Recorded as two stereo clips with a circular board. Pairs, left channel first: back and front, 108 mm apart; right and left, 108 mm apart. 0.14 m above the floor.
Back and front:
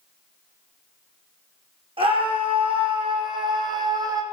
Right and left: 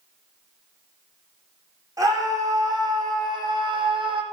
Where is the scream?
30° left, 7.5 m; by 4.2 s 55° left, 5 m.